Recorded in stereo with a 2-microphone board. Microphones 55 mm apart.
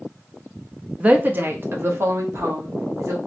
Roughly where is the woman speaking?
Right.